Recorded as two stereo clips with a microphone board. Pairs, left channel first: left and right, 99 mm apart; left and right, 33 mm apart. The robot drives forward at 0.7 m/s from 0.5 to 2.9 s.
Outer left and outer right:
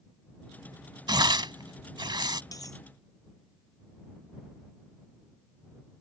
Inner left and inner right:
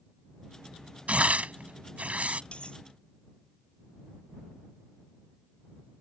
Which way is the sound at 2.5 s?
35° left (ahead or behind).